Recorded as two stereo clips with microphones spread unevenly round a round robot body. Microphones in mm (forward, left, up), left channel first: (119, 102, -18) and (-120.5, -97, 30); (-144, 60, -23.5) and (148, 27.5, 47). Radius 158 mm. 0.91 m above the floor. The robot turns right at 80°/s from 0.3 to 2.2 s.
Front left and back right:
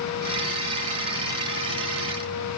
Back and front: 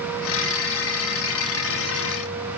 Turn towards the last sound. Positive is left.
No sound to turn to.